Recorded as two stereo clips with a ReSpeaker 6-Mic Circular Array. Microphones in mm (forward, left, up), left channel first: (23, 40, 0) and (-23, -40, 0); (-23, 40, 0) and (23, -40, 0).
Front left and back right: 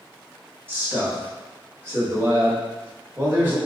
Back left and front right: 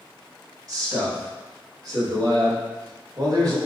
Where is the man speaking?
60° right, 1.4 m.